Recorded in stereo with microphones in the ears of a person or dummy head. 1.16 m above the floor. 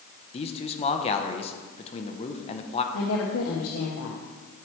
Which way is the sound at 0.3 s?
30° left (ahead or behind).